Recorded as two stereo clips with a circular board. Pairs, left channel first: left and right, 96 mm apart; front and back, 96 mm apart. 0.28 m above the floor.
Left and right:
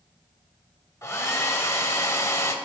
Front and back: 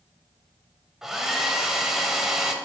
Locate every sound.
1.0 s a hair dryer: 100° left, 1.0 m